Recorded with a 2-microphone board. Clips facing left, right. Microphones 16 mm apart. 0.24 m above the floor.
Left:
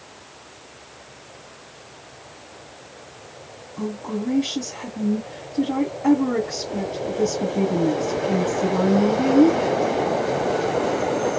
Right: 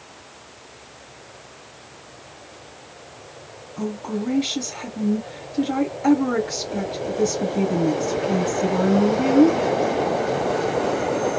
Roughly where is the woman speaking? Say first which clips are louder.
Right 1 dB; right.